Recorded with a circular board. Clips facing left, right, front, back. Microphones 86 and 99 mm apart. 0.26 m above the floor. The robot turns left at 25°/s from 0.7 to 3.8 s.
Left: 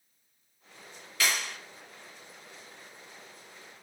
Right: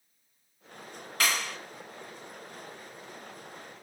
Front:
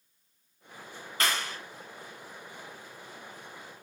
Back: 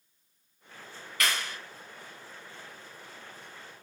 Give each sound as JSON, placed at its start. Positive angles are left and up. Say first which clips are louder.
{"t": 1.2, "sound": "a clap", "louder": "right 1 dB, front 1 dB", "azimuth_deg": -55, "distance_m": 1.6}